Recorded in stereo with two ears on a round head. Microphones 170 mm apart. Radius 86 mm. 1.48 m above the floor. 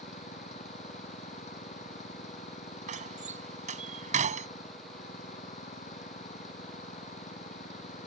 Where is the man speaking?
No man speaking in this recording.